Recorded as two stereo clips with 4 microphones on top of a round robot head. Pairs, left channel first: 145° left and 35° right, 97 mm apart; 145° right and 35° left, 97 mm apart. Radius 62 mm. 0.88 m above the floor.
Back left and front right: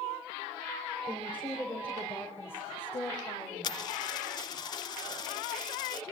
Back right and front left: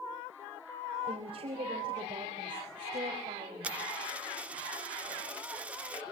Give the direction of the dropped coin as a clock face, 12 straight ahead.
8 o'clock.